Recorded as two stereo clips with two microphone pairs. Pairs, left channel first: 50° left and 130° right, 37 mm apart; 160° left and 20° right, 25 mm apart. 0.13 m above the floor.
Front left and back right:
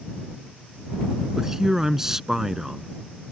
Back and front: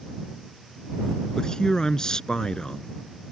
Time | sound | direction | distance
1.4 | a man speaking | 160° left | ?